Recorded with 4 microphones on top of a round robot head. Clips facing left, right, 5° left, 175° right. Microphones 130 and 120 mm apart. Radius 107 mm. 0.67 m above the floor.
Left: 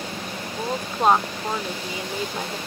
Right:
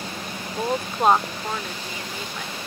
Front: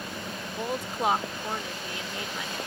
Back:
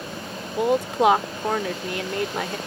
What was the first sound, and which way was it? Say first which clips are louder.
A woman speaking: right 2 dB, back 11 dB; 170° right.